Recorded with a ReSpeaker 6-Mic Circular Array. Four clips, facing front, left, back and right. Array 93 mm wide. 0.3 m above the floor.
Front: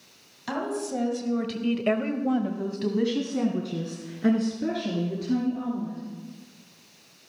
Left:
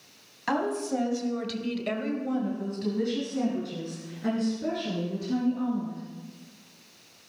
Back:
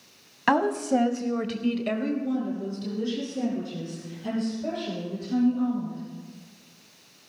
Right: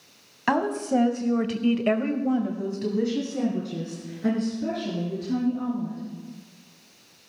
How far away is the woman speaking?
About 1.6 m.